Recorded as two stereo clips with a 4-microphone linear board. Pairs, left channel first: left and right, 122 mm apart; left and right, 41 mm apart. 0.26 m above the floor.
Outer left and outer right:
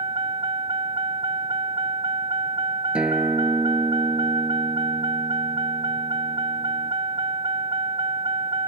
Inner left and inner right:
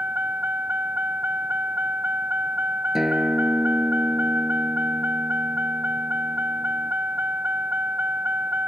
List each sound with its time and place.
0.0 s a vehicle: 40° right (ahead or behind)
3.0 s a guitar: 10° right (ahead or behind)